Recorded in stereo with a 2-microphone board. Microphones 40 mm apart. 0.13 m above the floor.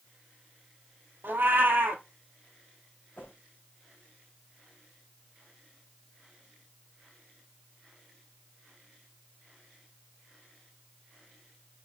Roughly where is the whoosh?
Left.